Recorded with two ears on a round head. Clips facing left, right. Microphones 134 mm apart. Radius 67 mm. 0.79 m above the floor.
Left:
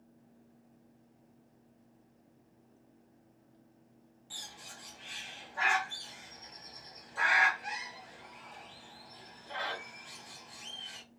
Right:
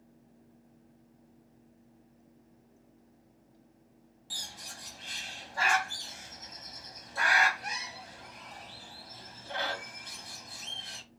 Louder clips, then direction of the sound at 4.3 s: Right 3 dB; 45° right (ahead or behind).